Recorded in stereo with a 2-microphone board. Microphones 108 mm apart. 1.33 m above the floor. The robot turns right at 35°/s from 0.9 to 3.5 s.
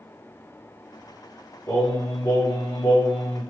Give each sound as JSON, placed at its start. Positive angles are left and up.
{"t": 1.7, "sound": "singing", "azimuth_deg": 30, "distance_m": 1.9}